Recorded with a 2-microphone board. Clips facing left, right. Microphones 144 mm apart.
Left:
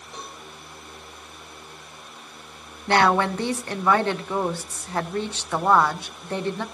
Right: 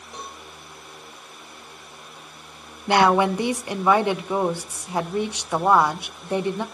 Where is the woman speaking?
15° right (ahead or behind), 0.7 m.